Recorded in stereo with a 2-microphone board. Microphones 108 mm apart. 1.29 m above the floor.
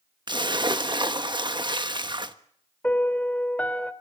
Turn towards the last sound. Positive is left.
turn(degrees=15)  # may be behind; listen again after turning